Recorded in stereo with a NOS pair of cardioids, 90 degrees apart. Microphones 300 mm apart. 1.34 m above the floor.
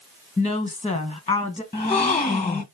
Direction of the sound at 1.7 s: 20° left.